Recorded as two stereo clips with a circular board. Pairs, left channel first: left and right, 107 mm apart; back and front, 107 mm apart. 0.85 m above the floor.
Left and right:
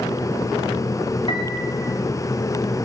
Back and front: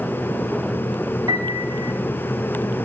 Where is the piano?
50° left, 1.0 m.